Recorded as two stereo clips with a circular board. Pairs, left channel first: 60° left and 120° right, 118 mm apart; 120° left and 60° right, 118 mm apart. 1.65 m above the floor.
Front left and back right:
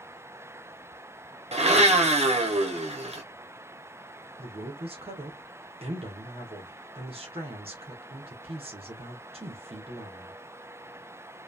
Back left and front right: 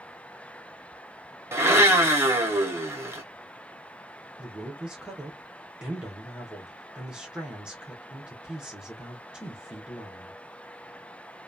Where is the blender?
125° right, 1.0 m.